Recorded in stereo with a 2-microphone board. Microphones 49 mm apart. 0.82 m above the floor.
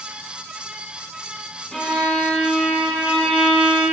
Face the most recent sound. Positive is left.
turn(degrees=10)  # may be behind; listen again after turning